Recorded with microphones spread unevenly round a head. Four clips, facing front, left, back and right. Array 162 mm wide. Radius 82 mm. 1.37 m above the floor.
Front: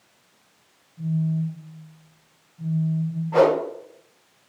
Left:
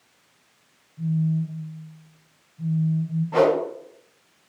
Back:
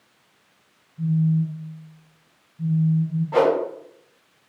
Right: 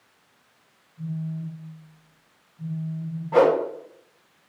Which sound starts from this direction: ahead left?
A phone buzzing, at 1.0 s.